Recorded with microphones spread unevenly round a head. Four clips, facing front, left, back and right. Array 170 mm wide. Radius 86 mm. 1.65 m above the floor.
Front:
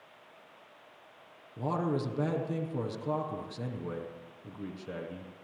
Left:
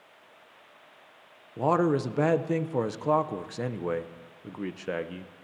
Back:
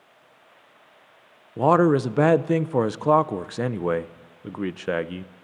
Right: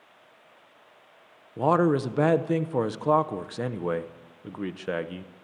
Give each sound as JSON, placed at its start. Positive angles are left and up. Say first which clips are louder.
{"t": 1.6, "sound": "a man speaking", "louder": "right 2 dB, back 14 dB", "azimuth_deg": 175, "distance_m": 0.8}